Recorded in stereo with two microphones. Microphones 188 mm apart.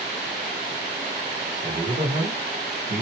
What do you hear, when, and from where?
1.6 s a man speaking: 55° right (ahead or behind), 1.8 m